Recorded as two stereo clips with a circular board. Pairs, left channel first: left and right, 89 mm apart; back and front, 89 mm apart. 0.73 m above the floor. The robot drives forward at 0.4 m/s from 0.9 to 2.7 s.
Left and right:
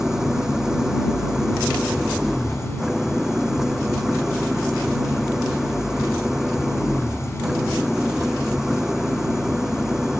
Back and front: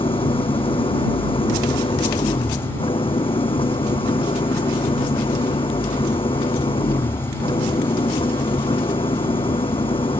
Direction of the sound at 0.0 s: 175° right.